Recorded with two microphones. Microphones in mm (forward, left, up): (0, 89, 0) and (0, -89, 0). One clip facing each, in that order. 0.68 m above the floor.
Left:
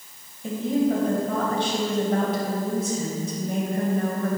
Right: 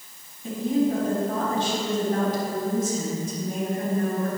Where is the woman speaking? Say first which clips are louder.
Even; 80° left, 3.5 m.